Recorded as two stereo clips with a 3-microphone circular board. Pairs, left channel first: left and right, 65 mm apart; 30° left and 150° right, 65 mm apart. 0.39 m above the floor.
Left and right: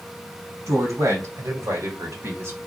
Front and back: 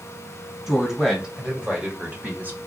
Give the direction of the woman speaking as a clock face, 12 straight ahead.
2 o'clock.